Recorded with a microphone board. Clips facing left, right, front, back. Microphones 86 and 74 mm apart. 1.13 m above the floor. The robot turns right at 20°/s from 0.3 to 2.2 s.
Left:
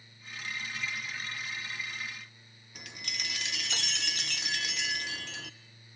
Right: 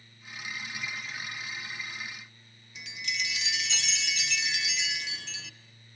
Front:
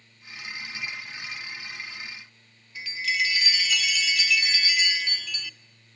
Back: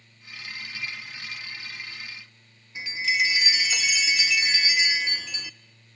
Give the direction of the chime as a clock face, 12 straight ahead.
8 o'clock.